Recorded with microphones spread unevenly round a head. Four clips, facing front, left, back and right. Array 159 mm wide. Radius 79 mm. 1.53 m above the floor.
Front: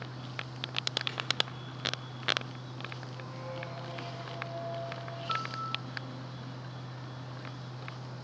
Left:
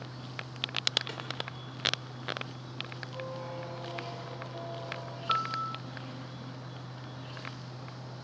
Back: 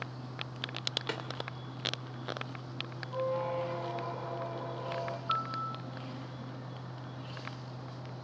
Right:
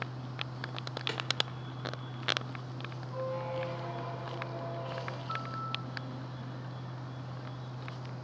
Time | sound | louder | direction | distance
1.1 | a snare drum | right 3 dB, back 7 dB | 170° right | 2.5 m
3.1 | a squeak | right 5 dB, back 13 dB | 170° right | 3.5 m
5.3 | a piano | left 10 dB, front 1 dB | 85° left | 3 m